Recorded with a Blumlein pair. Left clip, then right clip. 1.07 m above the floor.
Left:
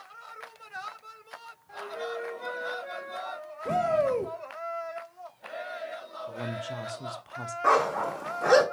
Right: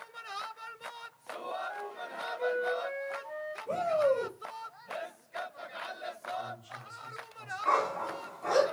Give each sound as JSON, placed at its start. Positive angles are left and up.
{"t": 1.7, "sound": "a flute", "azimuth_deg": -10, "distance_m": 1.9}
{"t": 3.6, "sound": "a shout", "azimuth_deg": 50, "distance_m": 1.0}
{"t": 6.3, "sound": "a woman speaking", "azimuth_deg": 45, "distance_m": 0.9}
{"t": 7.6, "sound": "a dog barking", "azimuth_deg": 45, "distance_m": 1.3}